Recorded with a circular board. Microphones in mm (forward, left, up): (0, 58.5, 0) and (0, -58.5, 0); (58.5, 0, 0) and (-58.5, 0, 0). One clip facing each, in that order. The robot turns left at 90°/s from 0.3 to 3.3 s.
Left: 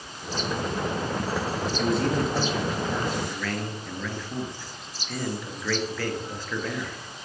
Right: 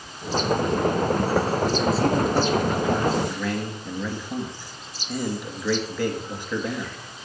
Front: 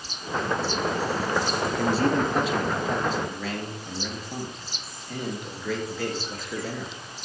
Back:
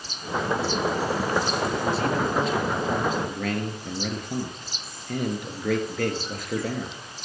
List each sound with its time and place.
1.8 s a man speaking: 25° right, 2 m; by 7.0 s 160° right, 2 m